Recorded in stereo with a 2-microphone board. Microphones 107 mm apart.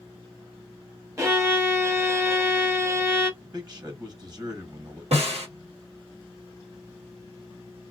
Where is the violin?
25° right (ahead or behind), 0.9 m.